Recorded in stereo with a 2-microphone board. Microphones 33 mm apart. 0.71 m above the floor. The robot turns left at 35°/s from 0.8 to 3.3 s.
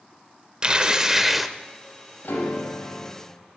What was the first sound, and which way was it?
Tearing paper, 25° right (ahead or behind).